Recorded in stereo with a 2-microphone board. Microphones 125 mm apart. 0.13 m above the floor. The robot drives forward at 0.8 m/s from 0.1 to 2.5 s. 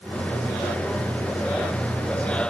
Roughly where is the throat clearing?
I don't hear throat clearing.